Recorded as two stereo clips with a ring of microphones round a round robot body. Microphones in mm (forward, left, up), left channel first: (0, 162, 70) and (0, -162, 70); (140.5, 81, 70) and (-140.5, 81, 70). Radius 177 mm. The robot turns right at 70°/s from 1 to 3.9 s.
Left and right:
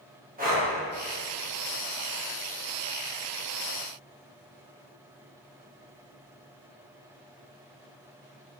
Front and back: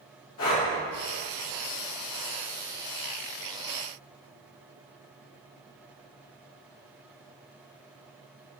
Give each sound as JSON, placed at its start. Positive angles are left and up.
{"t": 0.4, "sound": "breathing", "azimuth_deg": -30, "distance_m": 1.7}